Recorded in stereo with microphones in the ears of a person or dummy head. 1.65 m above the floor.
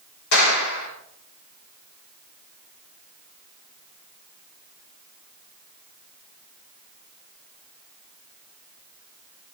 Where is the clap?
85° left, 5.5 m.